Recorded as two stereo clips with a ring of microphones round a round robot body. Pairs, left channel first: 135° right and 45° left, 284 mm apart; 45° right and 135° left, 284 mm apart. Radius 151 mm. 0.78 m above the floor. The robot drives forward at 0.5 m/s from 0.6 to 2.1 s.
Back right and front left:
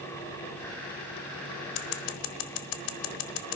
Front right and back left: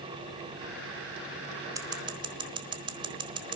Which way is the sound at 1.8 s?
145° right.